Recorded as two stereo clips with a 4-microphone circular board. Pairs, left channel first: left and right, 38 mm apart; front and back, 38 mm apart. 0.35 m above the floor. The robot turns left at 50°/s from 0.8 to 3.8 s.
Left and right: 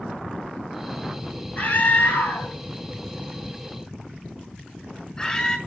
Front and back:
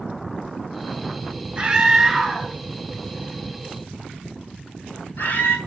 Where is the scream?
130° left, 3 m; by 5.6 s 20° left, 3 m.